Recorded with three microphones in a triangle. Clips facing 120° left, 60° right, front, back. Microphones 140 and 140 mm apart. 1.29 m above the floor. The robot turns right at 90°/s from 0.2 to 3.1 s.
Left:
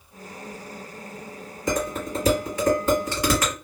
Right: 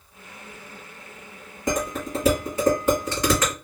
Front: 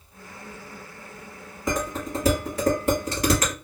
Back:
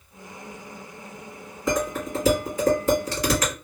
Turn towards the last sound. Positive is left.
turn(degrees=40)